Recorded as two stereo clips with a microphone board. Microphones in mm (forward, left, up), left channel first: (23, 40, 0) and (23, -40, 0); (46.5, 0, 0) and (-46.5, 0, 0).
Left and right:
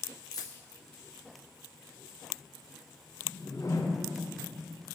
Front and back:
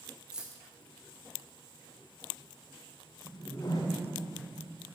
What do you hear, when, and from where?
0.3 s keys jangling: 100° left, 0.8 m
3.2 s a whoosh: 45° left, 0.7 m